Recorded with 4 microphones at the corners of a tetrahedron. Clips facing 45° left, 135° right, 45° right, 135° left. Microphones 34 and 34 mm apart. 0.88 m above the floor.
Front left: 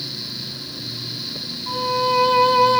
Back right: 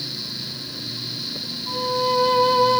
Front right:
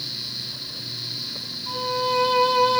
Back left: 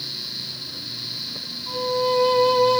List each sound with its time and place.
1.7 s a violin: 25° left, 1.7 m